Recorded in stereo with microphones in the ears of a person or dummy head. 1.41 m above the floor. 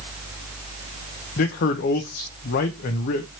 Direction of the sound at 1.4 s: 50° left (ahead or behind).